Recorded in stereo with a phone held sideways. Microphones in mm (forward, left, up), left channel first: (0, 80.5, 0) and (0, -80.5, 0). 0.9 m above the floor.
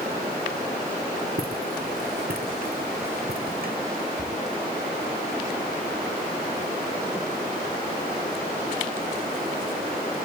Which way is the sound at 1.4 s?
70° right (ahead or behind).